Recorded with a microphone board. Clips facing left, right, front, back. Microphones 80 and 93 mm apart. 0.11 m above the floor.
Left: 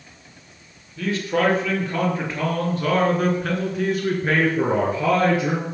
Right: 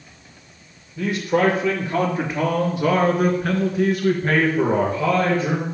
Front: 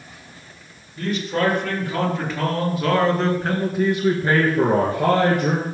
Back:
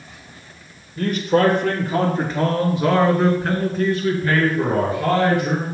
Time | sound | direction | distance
1.0 | a man speaking | 160° right | 3.5 m